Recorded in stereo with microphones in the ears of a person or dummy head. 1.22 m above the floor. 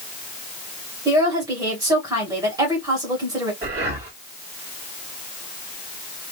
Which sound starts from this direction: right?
Breathing, at 3.6 s.